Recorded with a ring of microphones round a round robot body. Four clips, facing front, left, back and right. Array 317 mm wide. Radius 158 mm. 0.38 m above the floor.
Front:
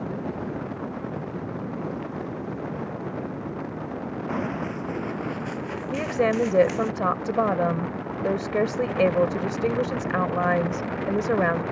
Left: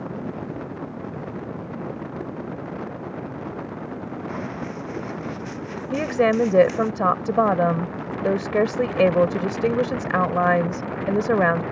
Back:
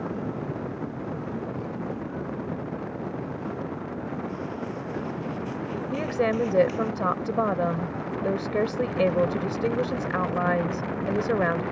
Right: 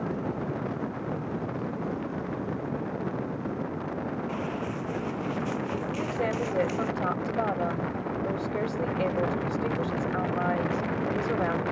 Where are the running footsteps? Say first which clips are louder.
Left 1 dB, front 4 dB; 15° left; by 6.9 s 20° left.